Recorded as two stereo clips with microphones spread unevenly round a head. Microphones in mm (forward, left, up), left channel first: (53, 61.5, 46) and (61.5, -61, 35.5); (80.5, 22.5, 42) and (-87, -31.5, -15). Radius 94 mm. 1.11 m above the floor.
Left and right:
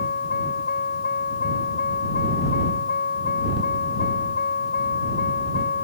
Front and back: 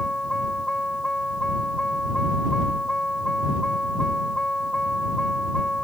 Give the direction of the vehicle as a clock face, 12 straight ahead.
9 o'clock.